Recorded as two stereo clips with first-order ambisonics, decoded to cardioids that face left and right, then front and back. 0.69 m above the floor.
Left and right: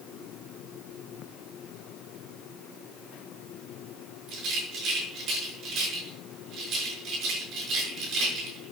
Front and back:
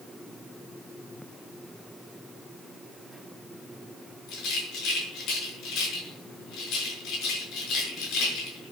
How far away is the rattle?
About 6 m.